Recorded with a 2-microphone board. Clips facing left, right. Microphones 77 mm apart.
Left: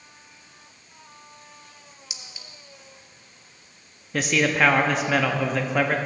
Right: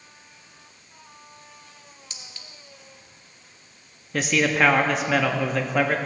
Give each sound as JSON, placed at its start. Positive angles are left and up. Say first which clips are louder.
{"t": 2.1, "sound": "a clink", "louder": "left 1 dB", "side_deg": 10, "distance_m": 0.7}
{"t": 4.1, "sound": "a man speaking", "louder": "even", "side_deg": 0, "distance_m": 0.6}